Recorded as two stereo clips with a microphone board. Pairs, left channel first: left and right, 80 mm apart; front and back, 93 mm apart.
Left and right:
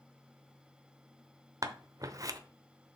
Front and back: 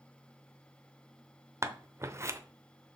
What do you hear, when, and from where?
1.6 s scissors: 125° right, 0.7 m